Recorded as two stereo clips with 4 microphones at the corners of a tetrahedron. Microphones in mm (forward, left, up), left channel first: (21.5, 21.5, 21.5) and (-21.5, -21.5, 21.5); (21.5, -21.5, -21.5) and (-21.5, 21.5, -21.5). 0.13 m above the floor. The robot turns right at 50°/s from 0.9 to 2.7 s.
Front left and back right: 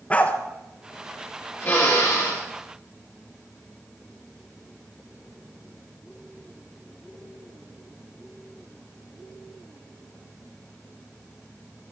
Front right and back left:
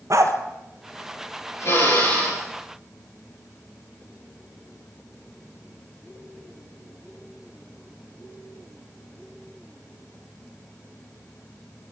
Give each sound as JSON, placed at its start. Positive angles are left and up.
{"t": 0.1, "sound": "a dog barking", "azimuth_deg": 115, "distance_m": 1.4}
{"t": 1.6, "sound": "a drill", "azimuth_deg": -10, "distance_m": 8.0}